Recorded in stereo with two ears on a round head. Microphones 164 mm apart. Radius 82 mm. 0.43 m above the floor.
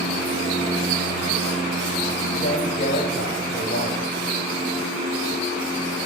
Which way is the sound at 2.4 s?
45° left (ahead or behind).